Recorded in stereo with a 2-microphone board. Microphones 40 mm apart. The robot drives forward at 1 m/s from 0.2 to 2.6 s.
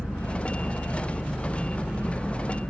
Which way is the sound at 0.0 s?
85° left.